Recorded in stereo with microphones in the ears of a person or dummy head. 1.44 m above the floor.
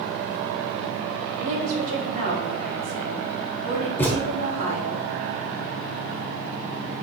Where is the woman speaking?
45° right (ahead or behind), 3 m.